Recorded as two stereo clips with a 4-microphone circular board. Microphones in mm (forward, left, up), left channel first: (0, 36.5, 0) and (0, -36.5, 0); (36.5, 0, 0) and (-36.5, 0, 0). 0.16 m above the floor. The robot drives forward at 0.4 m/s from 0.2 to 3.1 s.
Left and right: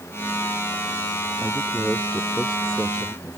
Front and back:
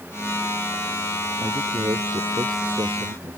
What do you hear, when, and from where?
1.4 s a man speaking: 170° left